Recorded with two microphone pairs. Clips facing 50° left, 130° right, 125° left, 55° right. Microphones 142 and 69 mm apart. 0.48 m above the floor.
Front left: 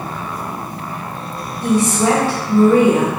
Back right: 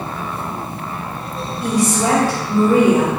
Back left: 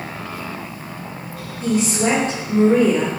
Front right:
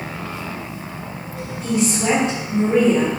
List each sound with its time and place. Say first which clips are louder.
1.6 s a woman speaking: front left 2 dB, back left 1 dB; 160° left, 1.5 m